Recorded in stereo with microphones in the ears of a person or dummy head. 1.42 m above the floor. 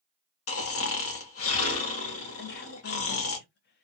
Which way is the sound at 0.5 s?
70° left (ahead or behind).